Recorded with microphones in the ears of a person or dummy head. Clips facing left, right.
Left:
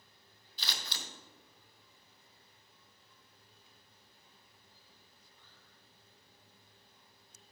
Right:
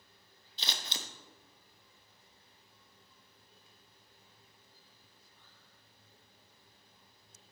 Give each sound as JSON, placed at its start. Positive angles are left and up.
{"t": 0.6, "sound": "scissors", "side_deg": -20, "distance_m": 0.5}